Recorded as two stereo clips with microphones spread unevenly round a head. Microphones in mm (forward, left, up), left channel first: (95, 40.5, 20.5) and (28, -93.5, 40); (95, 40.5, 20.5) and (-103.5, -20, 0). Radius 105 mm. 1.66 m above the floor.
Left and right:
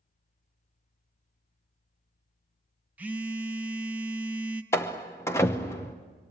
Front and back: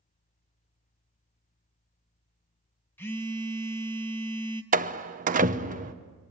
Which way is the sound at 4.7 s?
145° left.